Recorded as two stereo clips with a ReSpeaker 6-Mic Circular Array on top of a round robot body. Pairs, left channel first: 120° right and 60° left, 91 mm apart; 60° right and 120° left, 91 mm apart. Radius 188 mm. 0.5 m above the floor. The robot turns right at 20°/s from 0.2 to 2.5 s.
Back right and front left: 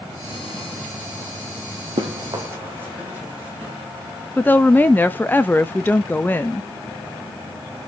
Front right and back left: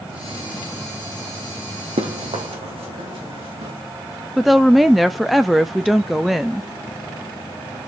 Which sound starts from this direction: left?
Running footsteps, at 2.0 s.